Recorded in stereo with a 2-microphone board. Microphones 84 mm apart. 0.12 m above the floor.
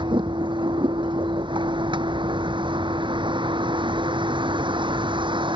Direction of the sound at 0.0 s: 80° right.